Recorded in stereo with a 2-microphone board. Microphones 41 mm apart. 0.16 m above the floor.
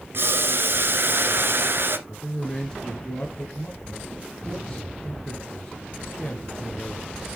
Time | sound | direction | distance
0.1 | boiling | 60° right (ahead or behind) | 1.5 m
2.1 | a man speaking | 15° left (ahead or behind) | 2.5 m